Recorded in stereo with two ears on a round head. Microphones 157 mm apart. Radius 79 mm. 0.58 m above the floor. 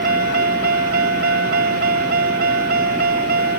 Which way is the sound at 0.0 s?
55° right (ahead or behind).